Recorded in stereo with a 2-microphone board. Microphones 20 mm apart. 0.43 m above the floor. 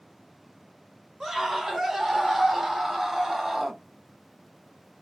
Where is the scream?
30° right (ahead or behind), 1.9 m; by 3.8 s 20° right (ahead or behind), 1.5 m.